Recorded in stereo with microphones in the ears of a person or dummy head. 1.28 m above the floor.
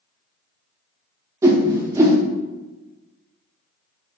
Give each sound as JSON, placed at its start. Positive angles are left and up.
{"t": 1.4, "sound": "a whoosh", "side_deg": -20, "distance_m": 0.5}